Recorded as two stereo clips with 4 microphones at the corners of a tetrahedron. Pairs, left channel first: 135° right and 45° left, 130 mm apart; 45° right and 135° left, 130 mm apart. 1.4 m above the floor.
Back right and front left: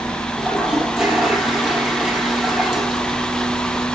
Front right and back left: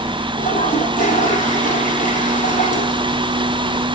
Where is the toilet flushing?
40° right, 6.5 m.